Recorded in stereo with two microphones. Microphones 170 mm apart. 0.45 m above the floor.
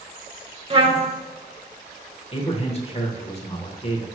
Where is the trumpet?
35° right (ahead or behind), 0.8 m.